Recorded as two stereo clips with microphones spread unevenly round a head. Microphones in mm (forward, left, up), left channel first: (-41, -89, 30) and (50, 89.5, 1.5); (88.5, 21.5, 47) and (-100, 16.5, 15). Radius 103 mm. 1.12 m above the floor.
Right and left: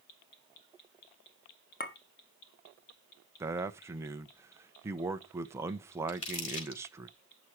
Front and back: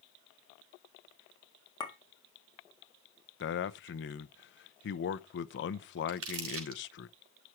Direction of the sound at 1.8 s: 70° right.